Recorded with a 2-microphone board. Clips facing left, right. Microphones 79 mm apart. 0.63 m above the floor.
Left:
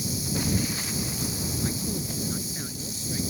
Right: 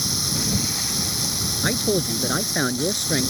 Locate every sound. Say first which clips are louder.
0.0 s running water: right 1 dB; 75° right (ahead or behind)
1.6 s a man speaking: right 12 dB; 85° right